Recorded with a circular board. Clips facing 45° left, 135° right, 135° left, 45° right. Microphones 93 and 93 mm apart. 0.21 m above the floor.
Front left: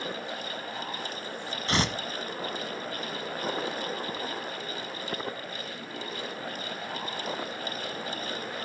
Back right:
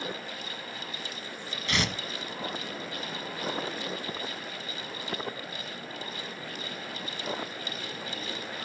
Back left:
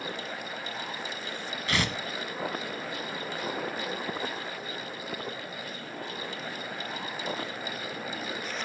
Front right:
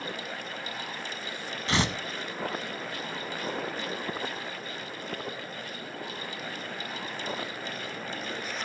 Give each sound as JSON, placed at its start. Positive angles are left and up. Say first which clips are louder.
{"t": 1.7, "sound": "tearing paper", "louder": "front left 3 dB, front right 2 dB", "azimuth_deg": 10, "distance_m": 1.0}